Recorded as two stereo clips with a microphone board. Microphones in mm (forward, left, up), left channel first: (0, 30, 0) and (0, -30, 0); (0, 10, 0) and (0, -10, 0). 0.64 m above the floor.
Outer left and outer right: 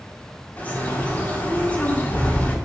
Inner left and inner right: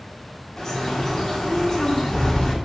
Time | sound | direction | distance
0.6 | a bird | 25° left (ahead or behind) | 1.9 m